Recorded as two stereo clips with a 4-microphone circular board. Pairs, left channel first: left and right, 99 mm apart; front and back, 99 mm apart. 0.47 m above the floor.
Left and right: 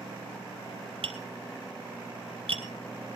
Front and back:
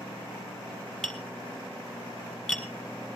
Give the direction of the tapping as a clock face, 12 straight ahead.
3 o'clock.